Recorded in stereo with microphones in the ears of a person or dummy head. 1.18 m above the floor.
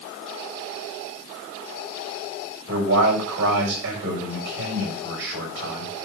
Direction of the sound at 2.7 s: 75° right (ahead or behind).